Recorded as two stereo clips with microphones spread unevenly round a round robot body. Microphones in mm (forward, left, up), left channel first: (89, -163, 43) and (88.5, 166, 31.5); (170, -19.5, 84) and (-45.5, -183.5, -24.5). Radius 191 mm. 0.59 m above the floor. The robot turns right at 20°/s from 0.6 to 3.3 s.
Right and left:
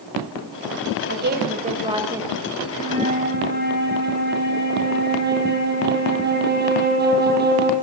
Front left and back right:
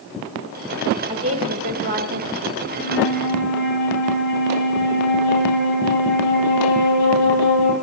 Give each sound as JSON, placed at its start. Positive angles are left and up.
{"t": 1.1, "sound": "a woman speaking", "azimuth_deg": 150, "distance_m": 2.5}
{"t": 2.7, "sound": "a flute", "azimuth_deg": 20, "distance_m": 6.5}